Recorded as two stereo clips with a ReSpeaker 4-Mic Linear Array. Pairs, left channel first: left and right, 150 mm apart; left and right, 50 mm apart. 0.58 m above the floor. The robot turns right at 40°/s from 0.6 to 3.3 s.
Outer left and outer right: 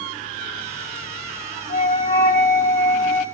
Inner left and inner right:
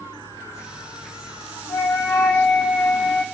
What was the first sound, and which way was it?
A flute, 65° left.